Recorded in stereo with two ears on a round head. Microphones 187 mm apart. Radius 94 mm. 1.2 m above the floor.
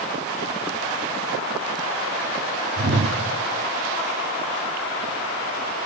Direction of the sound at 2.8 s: 55° right (ahead or behind).